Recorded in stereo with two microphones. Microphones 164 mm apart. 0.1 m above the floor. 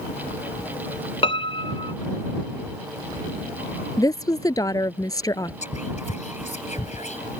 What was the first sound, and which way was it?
A piano, 30° left (ahead or behind).